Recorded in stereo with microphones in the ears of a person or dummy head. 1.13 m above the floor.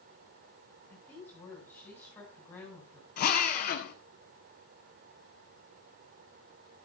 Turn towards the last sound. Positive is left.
turn(degrees=50)  # may be behind; listen again after turning